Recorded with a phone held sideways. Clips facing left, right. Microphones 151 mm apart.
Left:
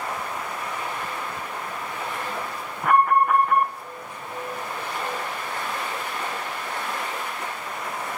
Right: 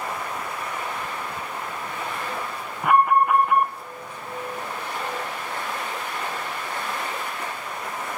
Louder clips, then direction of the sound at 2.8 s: Right 1 dB; 5° right (ahead or behind).